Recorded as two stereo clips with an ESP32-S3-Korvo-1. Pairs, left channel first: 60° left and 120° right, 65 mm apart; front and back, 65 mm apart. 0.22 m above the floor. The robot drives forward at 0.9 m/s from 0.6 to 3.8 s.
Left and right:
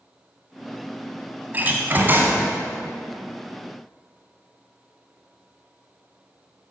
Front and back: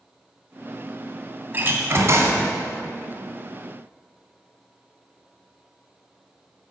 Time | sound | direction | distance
1.5 | a door slam | 155° right | 1.2 m